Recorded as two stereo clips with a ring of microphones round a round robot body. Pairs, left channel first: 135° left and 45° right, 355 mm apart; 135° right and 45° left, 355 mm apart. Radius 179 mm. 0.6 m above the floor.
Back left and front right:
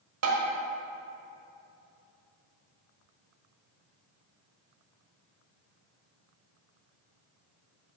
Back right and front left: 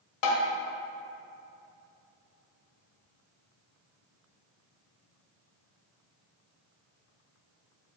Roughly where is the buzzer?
No buzzer in this recording.